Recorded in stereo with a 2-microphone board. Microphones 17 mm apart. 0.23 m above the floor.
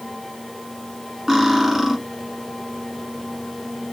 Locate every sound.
1.3 s cutlery clinking: 25° right (ahead or behind), 1.5 m